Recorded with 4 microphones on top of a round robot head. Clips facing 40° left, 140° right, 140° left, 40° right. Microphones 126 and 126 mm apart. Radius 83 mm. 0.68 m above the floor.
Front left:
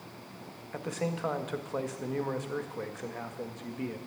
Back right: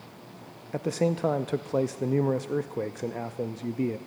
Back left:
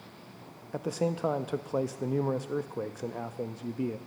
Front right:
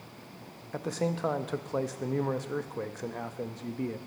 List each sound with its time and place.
0.7 s a man speaking: 145° right, 0.5 m